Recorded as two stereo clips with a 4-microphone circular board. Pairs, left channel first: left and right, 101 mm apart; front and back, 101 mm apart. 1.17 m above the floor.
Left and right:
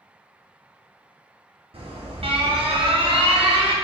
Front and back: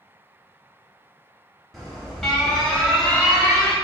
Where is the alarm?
90° right, 0.8 m.